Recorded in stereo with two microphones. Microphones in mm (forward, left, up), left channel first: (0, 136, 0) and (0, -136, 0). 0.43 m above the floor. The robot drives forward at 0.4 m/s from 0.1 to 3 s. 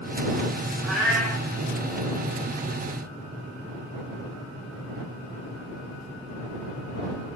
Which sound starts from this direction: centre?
A cat meowing, at 0.8 s.